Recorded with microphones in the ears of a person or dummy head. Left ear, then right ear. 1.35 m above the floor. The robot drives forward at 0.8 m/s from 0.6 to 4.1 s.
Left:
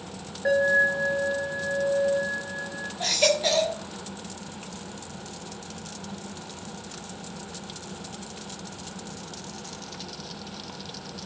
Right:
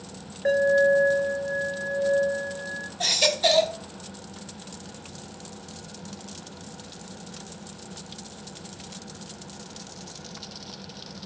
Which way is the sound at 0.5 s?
Centre (ahead or behind).